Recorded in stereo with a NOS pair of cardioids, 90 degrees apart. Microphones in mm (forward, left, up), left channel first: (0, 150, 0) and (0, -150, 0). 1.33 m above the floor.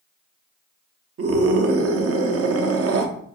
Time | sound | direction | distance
1.2 | a scream | 50° right | 0.8 m